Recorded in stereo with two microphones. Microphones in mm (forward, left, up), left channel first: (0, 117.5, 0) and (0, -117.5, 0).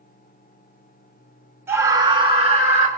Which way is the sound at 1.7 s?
10° right (ahead or behind).